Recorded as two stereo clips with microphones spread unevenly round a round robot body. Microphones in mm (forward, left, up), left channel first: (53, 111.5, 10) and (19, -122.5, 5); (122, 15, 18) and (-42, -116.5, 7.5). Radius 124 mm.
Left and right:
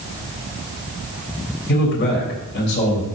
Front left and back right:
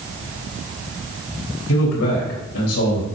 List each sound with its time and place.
1.7 s a man speaking: 40° left, 3.5 m